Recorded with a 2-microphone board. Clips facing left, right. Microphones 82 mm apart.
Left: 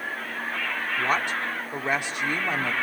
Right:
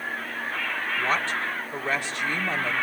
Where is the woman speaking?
15° left (ahead or behind), 1.8 m.